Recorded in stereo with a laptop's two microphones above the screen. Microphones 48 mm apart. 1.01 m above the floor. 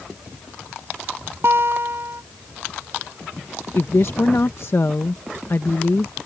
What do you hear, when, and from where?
1.4 s a guitar: 60° right (ahead or behind)
3.8 s a woman speaking: 60° left (ahead or behind)